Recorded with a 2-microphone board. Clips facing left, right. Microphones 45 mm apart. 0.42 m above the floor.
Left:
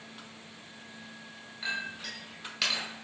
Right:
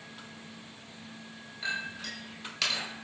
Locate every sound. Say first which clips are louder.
1.6 s a clink: even; 5° left (ahead or behind), 1.1 m